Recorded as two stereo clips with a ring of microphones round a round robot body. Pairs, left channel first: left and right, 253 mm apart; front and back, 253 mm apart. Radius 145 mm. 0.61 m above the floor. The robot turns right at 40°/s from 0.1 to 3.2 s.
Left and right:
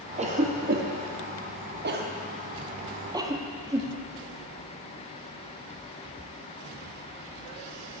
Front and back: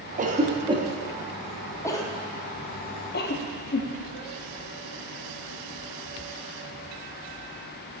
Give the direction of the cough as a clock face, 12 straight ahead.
5 o'clock.